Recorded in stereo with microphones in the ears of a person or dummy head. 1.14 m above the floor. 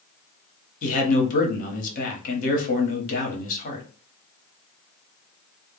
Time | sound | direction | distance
0.8 | a man speaking | 45° left (ahead or behind) | 1.0 m